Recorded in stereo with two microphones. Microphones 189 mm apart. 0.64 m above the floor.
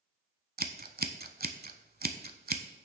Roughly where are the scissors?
Right.